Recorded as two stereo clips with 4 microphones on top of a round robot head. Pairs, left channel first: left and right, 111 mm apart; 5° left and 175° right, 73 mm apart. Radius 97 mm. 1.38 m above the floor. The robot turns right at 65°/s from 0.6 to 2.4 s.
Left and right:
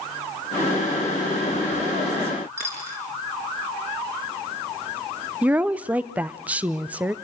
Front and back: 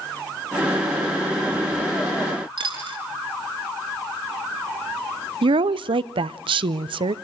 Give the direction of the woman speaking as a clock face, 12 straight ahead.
6 o'clock.